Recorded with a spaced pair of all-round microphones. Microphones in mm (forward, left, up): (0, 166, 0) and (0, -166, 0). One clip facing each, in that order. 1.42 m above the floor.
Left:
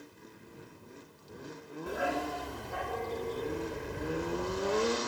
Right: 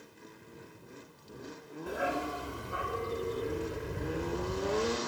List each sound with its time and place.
1.9 s a dog barking: centre (ahead or behind); by 5.0 s 25° right (ahead or behind)